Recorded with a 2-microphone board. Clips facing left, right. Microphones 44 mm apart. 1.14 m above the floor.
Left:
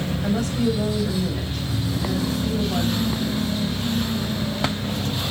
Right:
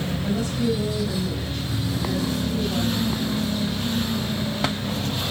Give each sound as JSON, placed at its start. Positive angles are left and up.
{"t": 0.2, "sound": "a woman speaking", "side_deg": 55, "distance_m": 8.0}